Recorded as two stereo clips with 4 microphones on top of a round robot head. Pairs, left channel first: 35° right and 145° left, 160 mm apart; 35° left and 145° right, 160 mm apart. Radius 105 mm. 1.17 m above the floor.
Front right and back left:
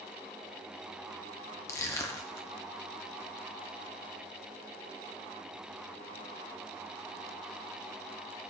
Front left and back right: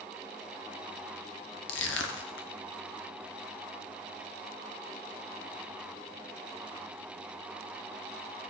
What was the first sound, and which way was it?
Crushing, 35° left.